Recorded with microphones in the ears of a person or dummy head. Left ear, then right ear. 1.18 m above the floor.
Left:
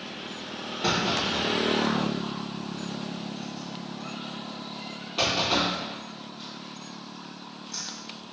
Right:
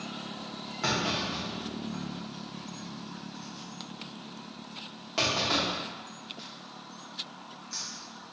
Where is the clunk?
45° right (ahead or behind), 0.9 m.